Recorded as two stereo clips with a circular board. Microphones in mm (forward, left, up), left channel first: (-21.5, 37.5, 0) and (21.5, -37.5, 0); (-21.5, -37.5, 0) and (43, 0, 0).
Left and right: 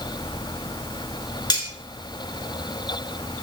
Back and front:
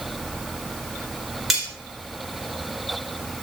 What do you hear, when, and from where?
1.5 s cutlery clinking: 115° left, 1.2 m